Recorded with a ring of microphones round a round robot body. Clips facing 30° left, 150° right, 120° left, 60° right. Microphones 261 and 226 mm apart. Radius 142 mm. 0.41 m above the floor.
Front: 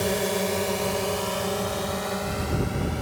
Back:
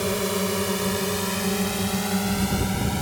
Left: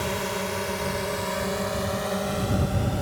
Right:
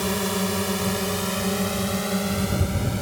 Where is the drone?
75° right; by 3.0 s 125° right.